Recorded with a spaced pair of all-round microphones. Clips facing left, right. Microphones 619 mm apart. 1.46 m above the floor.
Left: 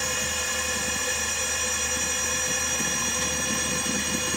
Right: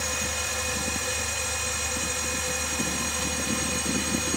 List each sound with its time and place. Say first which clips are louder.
0.0 s a machine running: left 1 dB; 55° left (ahead or behind), 3 m